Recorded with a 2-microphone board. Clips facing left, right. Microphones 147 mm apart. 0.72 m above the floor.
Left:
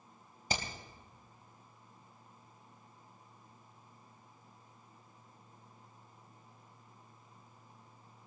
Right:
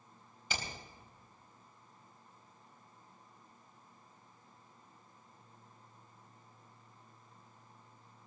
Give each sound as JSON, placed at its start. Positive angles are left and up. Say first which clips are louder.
{"t": 0.5, "sound": "hammering", "louder": "left 4 dB", "side_deg": 40, "distance_m": 3.5}